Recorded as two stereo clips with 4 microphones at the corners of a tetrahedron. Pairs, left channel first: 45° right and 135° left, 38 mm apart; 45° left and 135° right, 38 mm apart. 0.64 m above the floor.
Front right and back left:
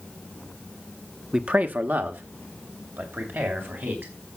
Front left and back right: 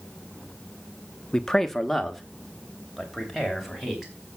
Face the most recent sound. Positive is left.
turn(degrees=140)